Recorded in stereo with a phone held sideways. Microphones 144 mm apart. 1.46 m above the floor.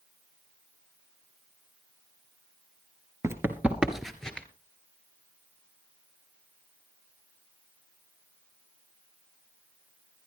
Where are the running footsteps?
20° right (ahead or behind), 1.5 m; by 4.5 s 10° left (ahead or behind), 1.7 m.